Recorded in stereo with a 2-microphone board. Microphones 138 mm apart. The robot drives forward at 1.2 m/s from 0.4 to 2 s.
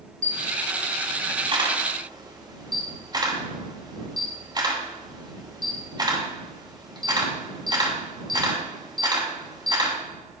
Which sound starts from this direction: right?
A camera shutter, at 0.2 s.